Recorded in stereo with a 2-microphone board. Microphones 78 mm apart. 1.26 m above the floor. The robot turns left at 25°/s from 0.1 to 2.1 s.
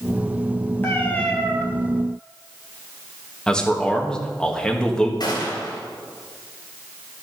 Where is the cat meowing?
25° left (ahead or behind), 2 m; by 1.6 s 10° left (ahead or behind), 2 m.